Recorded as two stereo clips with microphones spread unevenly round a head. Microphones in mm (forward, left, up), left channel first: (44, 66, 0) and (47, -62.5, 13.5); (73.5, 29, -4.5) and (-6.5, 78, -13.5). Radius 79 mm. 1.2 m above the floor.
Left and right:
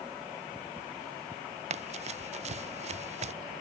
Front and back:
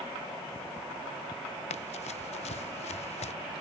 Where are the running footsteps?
55° right.